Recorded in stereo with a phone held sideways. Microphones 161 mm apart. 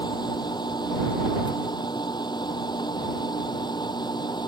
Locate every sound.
0.0 s a machine running: 25° left (ahead or behind)